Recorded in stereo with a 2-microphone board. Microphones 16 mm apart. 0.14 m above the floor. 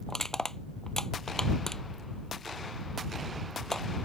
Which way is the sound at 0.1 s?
30° left (ahead or behind).